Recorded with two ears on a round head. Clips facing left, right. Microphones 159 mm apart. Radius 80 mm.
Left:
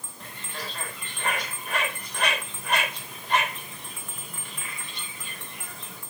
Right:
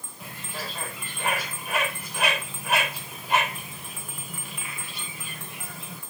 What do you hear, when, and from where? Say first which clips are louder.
0.2 s a bird: right 2 dB; 5° right (ahead or behind), 2 m